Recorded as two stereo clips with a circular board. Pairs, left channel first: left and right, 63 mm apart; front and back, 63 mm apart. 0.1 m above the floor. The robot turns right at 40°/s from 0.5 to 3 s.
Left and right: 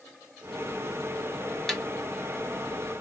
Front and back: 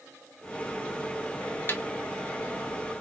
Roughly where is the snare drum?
Ahead.